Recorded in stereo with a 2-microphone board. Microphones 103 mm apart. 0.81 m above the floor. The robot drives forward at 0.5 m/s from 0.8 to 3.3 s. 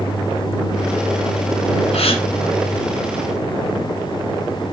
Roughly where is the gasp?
Left.